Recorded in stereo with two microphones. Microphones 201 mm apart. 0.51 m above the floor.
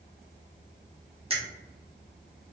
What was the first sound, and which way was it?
A finger snap, 30° right (ahead or behind).